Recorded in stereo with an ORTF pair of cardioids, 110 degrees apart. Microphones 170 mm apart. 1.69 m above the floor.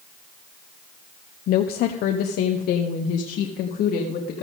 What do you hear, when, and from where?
1.5 s a woman speaking: 65° left, 0.9 m; by 4.4 s 75° left, 2.5 m